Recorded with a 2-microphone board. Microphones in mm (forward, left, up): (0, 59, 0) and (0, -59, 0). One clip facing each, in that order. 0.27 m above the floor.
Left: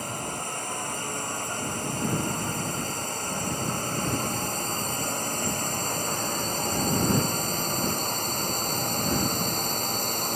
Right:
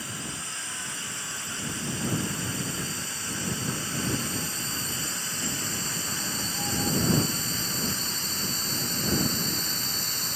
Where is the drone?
45° left (ahead or behind).